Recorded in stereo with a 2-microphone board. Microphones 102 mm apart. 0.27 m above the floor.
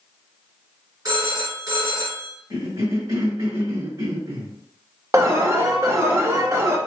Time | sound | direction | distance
1.1 | a phone ringing | 40° right (ahead or behind) | 1.9 m
2.5 | a cough | 50° right (ahead or behind) | 1.8 m
5.1 | an alarm | 30° right (ahead or behind) | 0.6 m